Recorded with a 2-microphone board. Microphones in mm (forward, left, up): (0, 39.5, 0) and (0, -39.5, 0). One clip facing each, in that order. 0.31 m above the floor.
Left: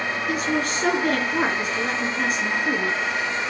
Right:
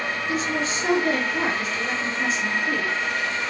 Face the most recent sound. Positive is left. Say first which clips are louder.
# left 2 dB
turn(degrees=60)  # may be behind; listen again after turning